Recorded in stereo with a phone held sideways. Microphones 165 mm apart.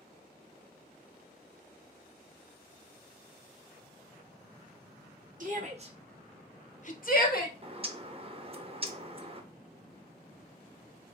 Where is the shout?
55° right (ahead or behind), 1.1 m; by 7.5 s 65° left (ahead or behind), 1.4 m.